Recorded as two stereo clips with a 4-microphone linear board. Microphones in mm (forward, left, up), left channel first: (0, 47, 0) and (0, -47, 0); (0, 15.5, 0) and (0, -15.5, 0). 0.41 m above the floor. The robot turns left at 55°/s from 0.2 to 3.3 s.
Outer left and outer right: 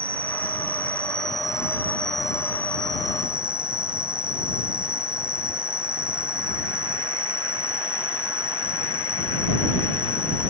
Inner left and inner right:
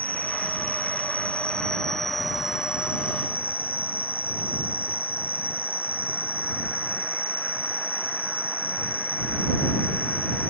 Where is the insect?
110° left; by 10.5 s 60° right.